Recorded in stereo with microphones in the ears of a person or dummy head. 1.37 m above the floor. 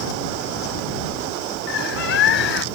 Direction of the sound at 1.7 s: 55° left (ahead or behind).